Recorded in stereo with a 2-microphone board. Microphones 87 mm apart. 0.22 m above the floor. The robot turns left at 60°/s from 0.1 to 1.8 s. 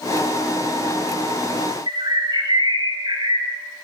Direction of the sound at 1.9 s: 55° right (ahead or behind).